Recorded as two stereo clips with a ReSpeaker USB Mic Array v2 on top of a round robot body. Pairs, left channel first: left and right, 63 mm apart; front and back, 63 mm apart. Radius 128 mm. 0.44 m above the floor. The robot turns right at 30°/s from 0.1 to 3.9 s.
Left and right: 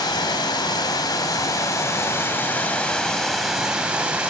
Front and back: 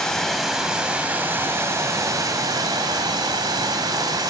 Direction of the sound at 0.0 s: 80° left.